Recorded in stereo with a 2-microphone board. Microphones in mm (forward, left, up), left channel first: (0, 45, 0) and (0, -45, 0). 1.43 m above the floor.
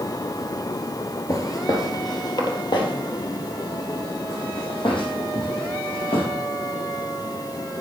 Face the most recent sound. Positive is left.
turn(degrees=70)  # may be behind; listen again after turning